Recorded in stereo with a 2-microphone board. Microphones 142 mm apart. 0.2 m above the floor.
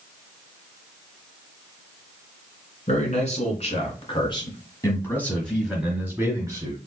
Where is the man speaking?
55° left (ahead or behind), 2 m; by 6.8 s 30° right (ahead or behind), 1.6 m.